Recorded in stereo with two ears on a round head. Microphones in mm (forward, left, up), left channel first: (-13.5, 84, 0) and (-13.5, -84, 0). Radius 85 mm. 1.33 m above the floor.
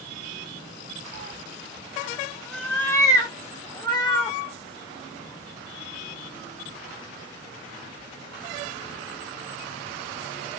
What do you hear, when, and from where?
1.1 s a cat meowing: 35° right (ahead or behind), 0.7 m; by 4.4 s 25° left (ahead or behind), 1.8 m